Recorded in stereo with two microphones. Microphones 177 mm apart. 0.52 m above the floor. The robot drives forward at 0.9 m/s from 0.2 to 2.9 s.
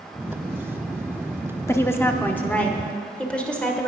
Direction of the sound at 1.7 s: 15° left (ahead or behind).